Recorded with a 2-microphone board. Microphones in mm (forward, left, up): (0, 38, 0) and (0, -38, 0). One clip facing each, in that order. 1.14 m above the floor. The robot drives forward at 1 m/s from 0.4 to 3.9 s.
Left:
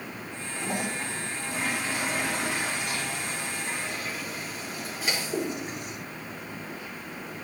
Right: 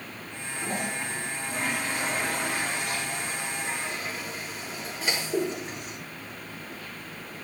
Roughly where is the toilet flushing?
Centre.